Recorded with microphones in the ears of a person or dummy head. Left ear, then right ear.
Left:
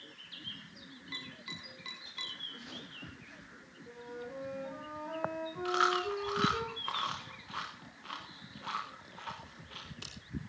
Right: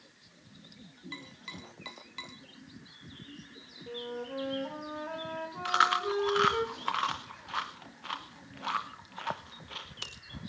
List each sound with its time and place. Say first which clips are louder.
1.1 s tapping: left 2 dB; 15° right (ahead or behind), 3 m
3.9 s a flute: right 6 dB; 70° right (ahead or behind), 3 m
5.7 s chewing: right 4 dB; 20° right (ahead or behind), 0.9 m